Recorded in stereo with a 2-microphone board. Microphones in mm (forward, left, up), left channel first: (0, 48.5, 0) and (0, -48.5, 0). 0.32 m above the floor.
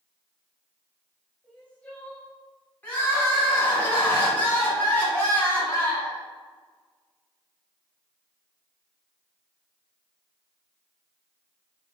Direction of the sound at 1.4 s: 15° left (ahead or behind).